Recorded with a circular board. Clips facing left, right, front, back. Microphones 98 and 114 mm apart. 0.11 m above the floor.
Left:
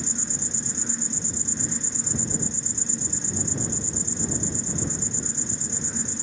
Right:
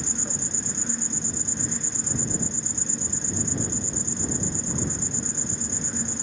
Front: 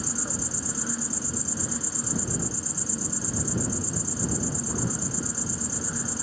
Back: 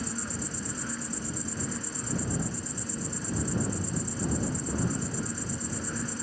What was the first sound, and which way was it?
An insect, 55° right.